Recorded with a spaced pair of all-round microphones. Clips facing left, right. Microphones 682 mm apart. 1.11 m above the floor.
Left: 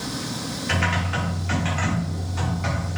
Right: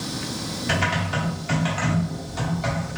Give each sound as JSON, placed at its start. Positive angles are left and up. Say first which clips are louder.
{"t": 0.7, "sound": "typing on a keyboard", "louder": "right 2 dB", "side_deg": -60, "distance_m": 1.2}